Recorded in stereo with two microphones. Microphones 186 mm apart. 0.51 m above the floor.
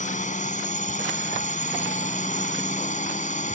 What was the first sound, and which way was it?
A drone, 40° left (ahead or behind).